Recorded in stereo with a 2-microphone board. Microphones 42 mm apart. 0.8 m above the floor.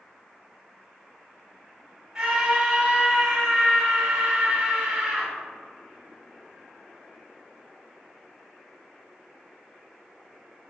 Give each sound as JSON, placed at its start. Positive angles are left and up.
{"t": 2.1, "sound": "a scream", "side_deg": -10, "distance_m": 1.5}